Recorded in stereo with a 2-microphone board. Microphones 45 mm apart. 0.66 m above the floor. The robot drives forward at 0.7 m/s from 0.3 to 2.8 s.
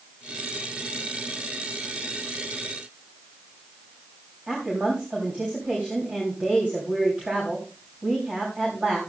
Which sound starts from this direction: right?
A woman speaking, at 4.5 s.